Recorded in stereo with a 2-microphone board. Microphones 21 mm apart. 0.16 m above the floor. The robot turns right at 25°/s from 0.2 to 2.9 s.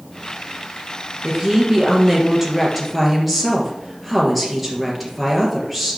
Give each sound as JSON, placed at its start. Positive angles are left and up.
{"t": 1.2, "sound": "a woman speaking", "azimuth_deg": -40, "distance_m": 3.0}